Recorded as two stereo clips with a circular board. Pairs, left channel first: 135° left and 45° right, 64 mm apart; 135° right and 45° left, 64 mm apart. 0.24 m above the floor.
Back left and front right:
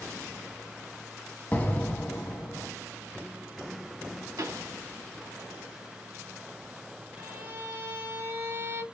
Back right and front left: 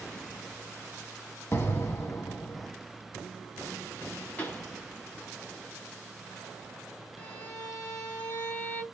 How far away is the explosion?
About 1.0 m.